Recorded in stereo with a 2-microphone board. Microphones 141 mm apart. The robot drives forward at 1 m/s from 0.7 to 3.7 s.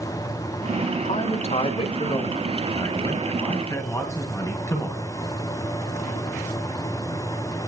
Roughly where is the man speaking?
Left.